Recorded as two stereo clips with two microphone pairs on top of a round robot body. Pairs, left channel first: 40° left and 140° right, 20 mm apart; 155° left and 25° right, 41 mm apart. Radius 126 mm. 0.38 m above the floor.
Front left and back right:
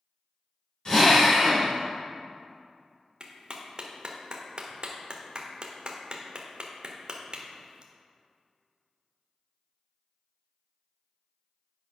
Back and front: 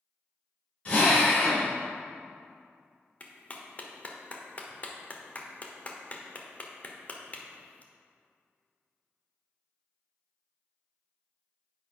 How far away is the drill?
About 3.5 m.